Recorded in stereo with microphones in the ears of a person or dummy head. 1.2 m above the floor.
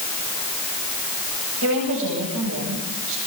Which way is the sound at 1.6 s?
70° right (ahead or behind).